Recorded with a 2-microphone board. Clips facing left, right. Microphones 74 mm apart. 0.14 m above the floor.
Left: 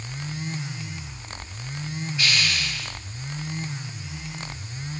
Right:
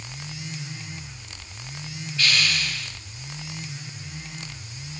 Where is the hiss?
20° left (ahead or behind), 3 m.